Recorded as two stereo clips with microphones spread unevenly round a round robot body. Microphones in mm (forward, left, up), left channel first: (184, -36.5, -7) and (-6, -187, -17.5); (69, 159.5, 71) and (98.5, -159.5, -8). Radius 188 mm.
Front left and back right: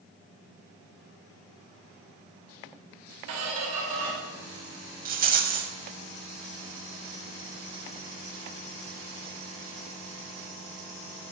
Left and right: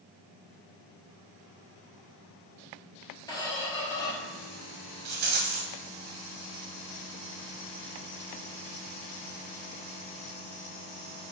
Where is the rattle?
145° right, 0.7 m.